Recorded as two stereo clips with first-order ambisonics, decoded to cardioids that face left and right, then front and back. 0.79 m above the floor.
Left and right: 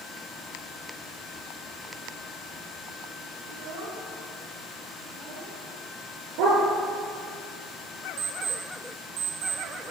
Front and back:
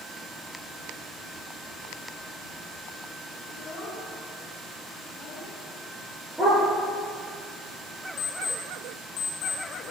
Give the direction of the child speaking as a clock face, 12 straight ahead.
2 o'clock.